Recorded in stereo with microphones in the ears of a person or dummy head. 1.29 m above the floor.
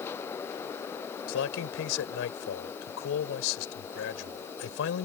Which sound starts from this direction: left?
A man speaking, at 1.3 s.